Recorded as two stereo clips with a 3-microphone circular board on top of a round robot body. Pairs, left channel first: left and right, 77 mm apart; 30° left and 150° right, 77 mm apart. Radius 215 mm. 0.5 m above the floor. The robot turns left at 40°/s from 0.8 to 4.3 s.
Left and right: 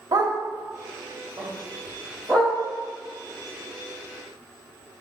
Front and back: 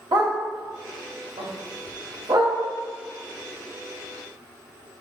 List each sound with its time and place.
0.1 s a dog barking: 130° right, 1.6 m; by 2.6 s 160° left, 1.6 m